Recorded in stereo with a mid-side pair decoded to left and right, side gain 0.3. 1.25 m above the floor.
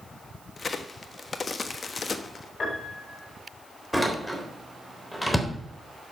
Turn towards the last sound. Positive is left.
turn(degrees=10)